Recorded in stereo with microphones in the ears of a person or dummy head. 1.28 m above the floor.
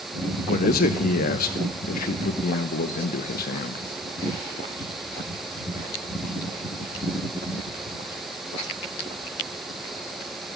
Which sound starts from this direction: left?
A man speaking, at 0.5 s.